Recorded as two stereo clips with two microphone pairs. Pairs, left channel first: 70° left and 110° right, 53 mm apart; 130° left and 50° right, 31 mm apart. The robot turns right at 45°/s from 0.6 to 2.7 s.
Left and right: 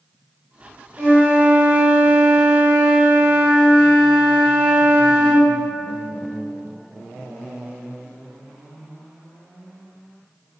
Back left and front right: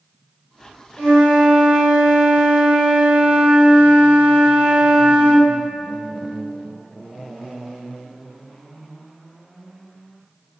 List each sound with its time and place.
1.0 s a flute: 85° right, 1.4 m; by 5.5 s 5° right, 1.4 m